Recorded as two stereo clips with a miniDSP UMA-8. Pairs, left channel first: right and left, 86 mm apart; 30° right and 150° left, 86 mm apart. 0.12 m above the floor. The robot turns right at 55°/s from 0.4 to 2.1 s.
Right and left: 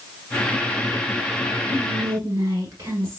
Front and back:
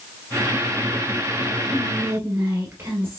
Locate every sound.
1.7 s whispering: 100° left, 1.2 m; by 3.2 s 120° left, 1.2 m